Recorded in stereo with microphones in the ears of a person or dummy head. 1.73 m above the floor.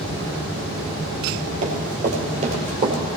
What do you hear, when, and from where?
1.6 s running footsteps: 45° right (ahead or behind), 3 m; by 3.0 s 35° right (ahead or behind), 2.5 m